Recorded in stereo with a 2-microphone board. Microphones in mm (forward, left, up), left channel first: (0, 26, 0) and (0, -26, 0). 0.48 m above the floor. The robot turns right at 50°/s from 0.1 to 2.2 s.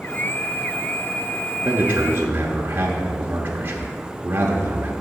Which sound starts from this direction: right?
A man speaking, at 1.6 s.